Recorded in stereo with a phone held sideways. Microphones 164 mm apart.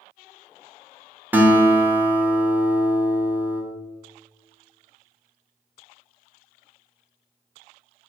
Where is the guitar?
10° right (ahead or behind), 0.7 m.